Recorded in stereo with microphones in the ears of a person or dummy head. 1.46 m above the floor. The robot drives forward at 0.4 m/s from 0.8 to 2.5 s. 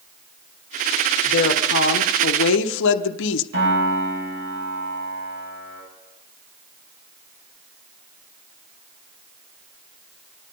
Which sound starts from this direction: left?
A woman speaking, at 1.2 s.